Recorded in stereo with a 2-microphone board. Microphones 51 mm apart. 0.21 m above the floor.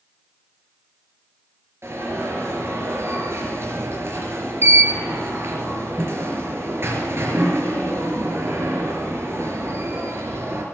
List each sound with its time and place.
1.8 s an alarm: 55° right (ahead or behind), 4 m